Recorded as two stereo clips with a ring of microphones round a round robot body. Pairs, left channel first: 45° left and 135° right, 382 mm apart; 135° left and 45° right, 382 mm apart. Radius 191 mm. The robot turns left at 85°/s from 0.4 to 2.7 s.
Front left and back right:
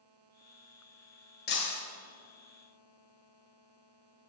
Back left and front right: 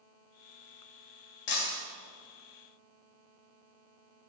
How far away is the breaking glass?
About 1.6 m.